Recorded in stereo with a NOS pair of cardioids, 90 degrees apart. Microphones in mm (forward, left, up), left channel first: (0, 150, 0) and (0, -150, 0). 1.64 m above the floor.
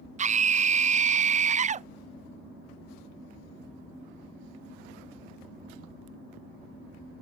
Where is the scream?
25° right.